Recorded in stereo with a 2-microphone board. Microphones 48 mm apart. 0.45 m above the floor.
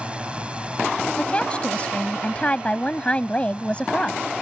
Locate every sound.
0.0 s a drone: 25° right (ahead or behind)
1.2 s a woman speaking: 25° left (ahead or behind)